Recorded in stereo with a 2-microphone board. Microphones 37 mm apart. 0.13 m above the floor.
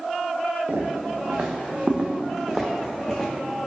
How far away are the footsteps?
About 1.0 m.